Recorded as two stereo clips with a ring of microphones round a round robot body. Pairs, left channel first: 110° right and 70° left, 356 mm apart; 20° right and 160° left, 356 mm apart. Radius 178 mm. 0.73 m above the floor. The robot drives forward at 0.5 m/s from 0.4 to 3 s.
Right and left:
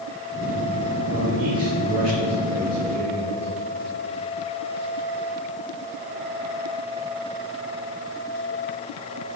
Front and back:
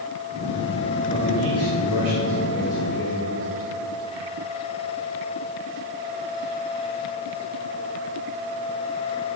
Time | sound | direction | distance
1.1 | a man speaking | 100° left | 2.5 m